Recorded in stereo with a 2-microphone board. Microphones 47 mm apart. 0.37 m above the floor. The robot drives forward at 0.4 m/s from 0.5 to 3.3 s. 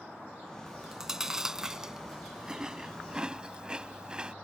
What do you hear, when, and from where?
0.7 s chewing: 10° right (ahead or behind); by 4.3 s 20° right (ahead or behind)